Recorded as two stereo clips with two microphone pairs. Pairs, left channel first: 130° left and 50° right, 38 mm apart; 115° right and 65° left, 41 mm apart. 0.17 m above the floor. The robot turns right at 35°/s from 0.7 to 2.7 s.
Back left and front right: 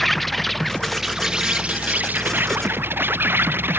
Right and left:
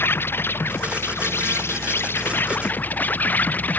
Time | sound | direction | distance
0.0 | an insect | 145° right | ?